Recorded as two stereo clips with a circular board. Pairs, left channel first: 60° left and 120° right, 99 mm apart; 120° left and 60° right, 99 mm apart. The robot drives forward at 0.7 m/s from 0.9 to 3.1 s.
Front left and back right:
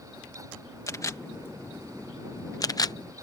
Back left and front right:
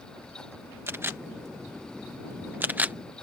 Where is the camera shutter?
5° left; by 3.0 s 15° left.